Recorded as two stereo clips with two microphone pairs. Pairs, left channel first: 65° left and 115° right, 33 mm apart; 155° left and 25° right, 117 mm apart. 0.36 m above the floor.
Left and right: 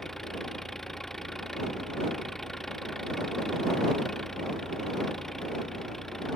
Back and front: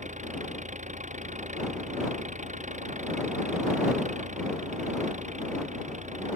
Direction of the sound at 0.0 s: 20° right.